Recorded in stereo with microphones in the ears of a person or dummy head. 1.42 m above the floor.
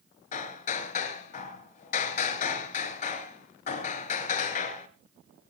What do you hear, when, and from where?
0.3 s hammering: 45° left (ahead or behind), 2 m